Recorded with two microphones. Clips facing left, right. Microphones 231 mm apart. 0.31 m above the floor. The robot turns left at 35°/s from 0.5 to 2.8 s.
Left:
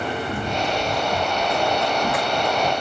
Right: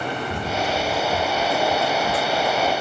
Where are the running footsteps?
55° left (ahead or behind), 2.5 m; by 2.7 s 70° left (ahead or behind), 1.4 m.